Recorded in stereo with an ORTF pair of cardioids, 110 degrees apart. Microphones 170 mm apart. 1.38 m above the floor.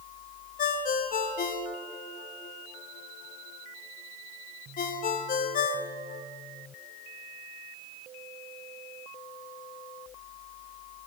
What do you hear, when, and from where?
0.6 s a ringtone: 55° left, 1.4 m